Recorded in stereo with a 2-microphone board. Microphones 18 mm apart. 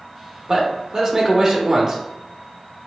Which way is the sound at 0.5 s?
30° right (ahead or behind).